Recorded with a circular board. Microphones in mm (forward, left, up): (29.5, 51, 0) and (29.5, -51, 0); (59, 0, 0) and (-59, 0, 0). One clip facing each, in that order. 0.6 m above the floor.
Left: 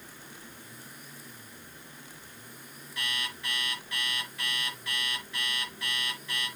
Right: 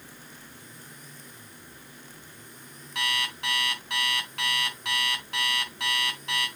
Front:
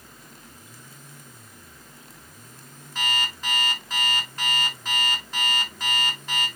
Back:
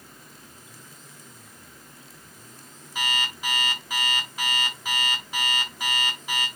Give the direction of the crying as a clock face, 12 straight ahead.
No crying in this recording.